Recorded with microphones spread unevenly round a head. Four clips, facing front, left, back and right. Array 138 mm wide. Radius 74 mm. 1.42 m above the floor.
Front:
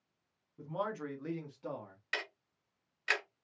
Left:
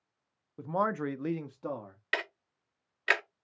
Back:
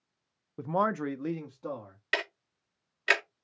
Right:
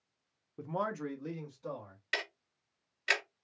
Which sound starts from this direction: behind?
A man speaking, at 0.6 s.